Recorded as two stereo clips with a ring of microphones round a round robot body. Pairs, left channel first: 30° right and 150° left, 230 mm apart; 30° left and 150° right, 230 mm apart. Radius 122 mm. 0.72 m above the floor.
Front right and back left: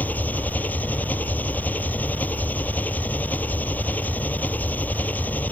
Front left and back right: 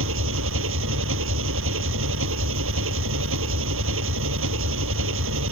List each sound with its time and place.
0.0 s an engine running: 115° right